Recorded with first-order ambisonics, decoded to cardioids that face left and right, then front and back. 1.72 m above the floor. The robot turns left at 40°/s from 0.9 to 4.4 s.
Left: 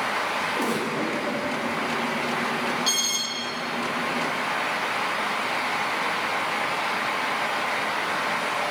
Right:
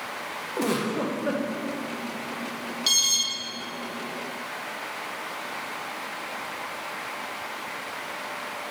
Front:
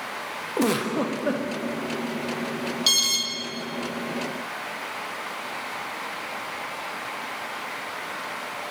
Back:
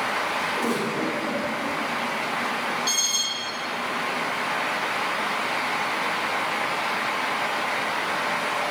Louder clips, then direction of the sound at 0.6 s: Left 2 dB, front 1 dB; 5° right.